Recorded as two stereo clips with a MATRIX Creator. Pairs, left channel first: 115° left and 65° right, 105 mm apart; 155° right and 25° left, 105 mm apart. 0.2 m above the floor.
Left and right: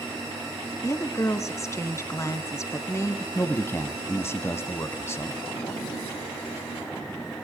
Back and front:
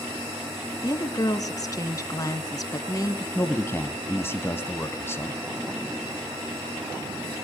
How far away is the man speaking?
About 1.4 m.